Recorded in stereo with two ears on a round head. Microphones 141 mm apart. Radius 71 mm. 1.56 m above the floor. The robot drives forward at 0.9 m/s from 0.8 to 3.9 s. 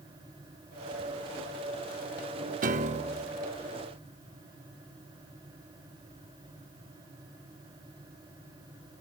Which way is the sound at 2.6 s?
55° right (ahead or behind).